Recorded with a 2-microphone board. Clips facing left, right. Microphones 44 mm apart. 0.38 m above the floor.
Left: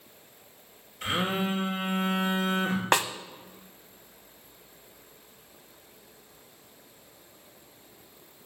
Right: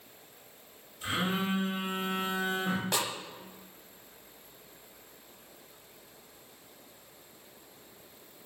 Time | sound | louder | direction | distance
1.0 | a phone buzzing | left 3 dB | 65° left (ahead or behind) | 2.5 m
2.9 | a snare drum | left 11 dB | 65° left (ahead or behind) | 0.6 m